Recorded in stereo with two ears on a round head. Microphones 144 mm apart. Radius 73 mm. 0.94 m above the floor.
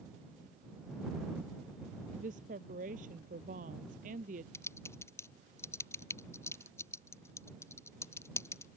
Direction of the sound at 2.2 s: 50° right (ahead or behind).